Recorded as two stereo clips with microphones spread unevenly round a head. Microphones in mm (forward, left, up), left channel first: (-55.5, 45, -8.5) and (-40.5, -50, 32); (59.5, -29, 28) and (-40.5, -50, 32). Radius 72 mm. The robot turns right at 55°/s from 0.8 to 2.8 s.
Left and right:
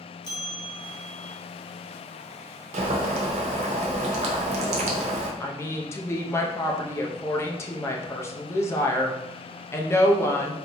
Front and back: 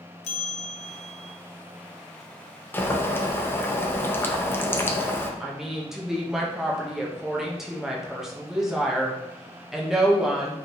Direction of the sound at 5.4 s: 105° left.